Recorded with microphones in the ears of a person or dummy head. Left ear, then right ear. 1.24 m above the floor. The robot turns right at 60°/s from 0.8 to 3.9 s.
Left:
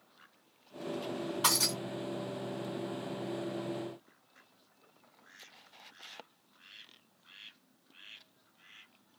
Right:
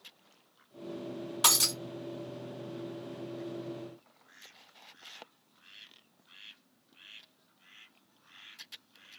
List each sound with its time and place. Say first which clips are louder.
1.4 s breaking glass: right 3 dB; 25° right (ahead or behind), 1.5 m; by 1.8 s 10° right (ahead or behind), 1.5 m